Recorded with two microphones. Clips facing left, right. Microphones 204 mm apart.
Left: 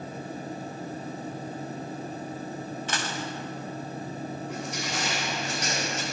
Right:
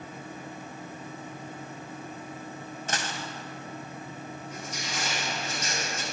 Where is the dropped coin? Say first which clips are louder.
Right 2 dB; 45° right (ahead or behind), 2 m.